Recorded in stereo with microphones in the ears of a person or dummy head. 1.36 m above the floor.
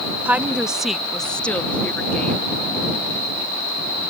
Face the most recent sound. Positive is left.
turn(degrees=5)  # may be behind; listen again after turning